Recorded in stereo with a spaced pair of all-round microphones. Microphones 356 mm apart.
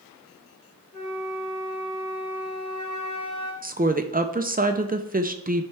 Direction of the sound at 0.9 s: 50° left (ahead or behind).